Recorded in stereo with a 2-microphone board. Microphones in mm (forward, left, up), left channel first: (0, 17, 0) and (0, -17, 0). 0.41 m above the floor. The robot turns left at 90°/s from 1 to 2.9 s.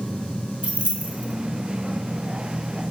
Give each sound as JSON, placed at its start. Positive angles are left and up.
{"t": 0.6, "sound": "keys jangling", "side_deg": -40, "distance_m": 0.7}